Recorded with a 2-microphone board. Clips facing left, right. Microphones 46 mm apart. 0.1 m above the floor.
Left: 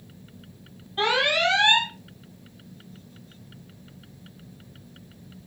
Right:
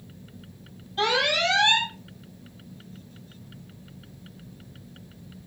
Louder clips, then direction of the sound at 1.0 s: Left 1 dB; 25° left (ahead or behind).